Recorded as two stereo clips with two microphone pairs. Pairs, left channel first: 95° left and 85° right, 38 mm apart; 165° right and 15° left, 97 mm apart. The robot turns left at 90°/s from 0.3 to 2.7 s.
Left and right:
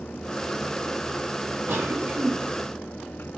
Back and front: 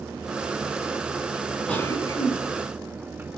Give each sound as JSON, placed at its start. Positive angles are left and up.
{"t": 1.7, "sound": "a cough", "azimuth_deg": -85, "distance_m": 4.0}